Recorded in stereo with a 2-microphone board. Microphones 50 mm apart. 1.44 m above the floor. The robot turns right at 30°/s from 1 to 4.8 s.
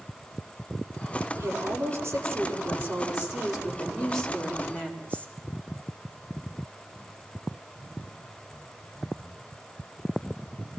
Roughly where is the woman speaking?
Right.